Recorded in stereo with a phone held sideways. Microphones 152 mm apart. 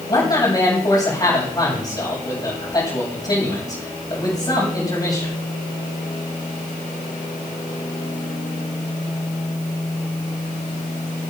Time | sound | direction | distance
0.1 | a man speaking | 30° left (ahead or behind) | 7 m